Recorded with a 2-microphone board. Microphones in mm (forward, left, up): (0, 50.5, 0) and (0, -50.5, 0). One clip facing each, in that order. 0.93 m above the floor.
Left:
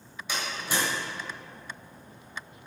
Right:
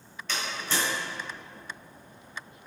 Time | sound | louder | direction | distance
0.3 | a door slam | even | 10° left (ahead or behind) | 3 m